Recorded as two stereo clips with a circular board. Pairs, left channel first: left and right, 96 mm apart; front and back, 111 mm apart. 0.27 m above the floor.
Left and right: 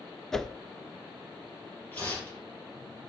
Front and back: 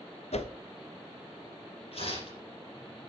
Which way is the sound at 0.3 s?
5° left.